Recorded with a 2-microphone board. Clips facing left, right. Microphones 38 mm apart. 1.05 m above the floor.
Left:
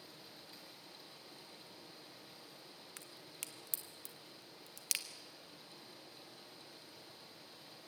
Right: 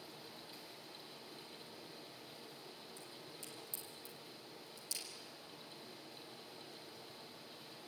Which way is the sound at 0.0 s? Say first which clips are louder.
Right 2 dB; centre (ahead or behind).